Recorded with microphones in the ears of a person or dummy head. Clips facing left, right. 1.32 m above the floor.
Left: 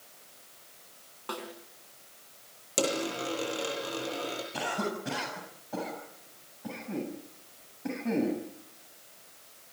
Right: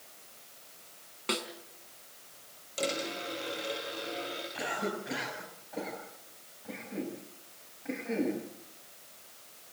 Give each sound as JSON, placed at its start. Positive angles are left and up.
{"t": 1.3, "sound": "a snare drum", "side_deg": -30, "distance_m": 4.0}
{"t": 2.8, "sound": "a dropped coin", "side_deg": 50, "distance_m": 8.5}
{"t": 4.5, "sound": "a cough", "side_deg": 70, "distance_m": 8.0}